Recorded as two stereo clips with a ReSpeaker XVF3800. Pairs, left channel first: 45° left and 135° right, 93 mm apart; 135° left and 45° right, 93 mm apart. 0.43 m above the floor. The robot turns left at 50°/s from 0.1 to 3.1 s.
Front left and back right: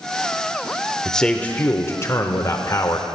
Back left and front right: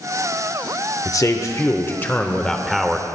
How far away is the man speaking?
About 0.9 m.